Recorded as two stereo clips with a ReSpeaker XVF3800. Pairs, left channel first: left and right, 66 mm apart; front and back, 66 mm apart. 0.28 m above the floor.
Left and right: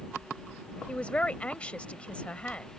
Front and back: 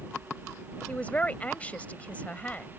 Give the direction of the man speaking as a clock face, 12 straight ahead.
11 o'clock.